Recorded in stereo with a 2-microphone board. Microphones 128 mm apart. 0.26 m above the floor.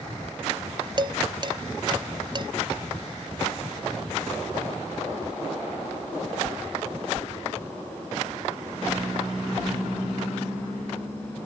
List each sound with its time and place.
1.0 s dishes clattering: 35° right (ahead or behind), 0.7 m